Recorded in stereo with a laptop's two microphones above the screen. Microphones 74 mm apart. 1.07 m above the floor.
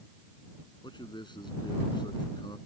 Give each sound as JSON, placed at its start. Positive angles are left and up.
{"t": 0.8, "sound": "a man speaking", "side_deg": 85}